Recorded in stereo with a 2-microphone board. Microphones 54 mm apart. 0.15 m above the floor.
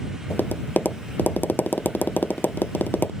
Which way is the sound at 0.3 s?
35° left (ahead or behind).